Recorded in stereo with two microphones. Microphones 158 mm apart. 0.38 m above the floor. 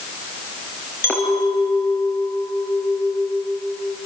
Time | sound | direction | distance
1.0 | a clink | 15° left (ahead or behind) | 4.5 m